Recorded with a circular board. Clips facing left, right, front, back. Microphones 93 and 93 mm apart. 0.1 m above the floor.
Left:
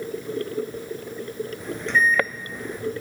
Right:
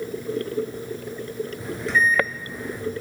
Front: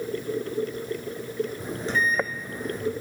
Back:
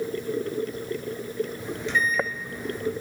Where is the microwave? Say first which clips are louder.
Even, even; 10° right, 1.8 m.